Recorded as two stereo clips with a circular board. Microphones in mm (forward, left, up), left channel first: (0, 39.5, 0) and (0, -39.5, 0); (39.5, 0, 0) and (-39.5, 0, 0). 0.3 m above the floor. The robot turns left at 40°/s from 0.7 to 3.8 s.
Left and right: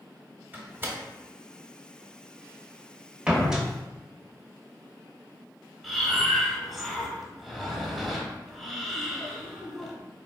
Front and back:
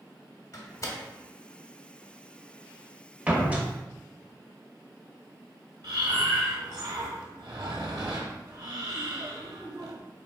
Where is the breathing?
Straight behind, 1.1 m.